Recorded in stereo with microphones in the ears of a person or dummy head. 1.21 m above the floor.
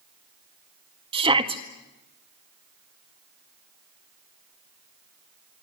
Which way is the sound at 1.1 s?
25° right (ahead or behind).